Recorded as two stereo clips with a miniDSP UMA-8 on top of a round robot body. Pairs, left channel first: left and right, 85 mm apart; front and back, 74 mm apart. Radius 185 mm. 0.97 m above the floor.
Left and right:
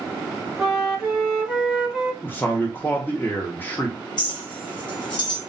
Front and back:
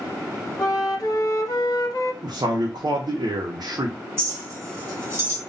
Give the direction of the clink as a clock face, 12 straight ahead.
8 o'clock.